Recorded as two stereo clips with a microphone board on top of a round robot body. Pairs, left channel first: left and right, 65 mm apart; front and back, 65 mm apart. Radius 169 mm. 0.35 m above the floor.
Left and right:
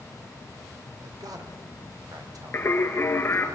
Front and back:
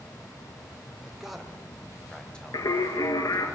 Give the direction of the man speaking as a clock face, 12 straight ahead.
3 o'clock.